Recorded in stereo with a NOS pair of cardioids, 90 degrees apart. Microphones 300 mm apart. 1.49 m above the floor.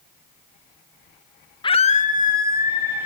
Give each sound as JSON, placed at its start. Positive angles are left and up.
{"t": 1.6, "sound": "a scream", "azimuth_deg": 15, "distance_m": 0.8}